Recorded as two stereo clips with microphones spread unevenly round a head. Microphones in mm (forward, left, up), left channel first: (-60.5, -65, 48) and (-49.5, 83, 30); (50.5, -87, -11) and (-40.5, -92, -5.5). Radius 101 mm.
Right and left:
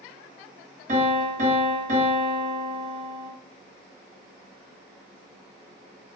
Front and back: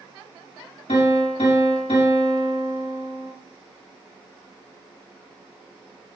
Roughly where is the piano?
Ahead left.